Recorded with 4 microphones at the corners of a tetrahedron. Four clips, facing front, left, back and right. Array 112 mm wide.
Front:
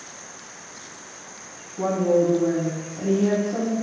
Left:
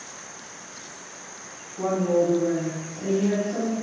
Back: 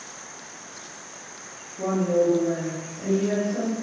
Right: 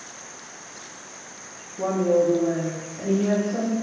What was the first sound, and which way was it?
A woman speaking, 15° left.